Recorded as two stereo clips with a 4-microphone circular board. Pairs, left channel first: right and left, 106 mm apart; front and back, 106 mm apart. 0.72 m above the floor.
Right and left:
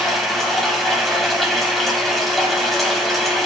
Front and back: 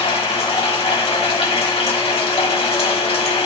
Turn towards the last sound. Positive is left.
turn(degrees=0)